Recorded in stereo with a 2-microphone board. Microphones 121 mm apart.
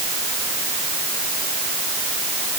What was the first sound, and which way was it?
Only background noise.